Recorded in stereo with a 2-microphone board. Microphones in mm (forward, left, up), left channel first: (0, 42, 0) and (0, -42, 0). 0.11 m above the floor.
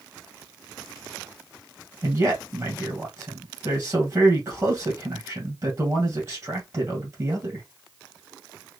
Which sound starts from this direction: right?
A man speaking, at 2.0 s.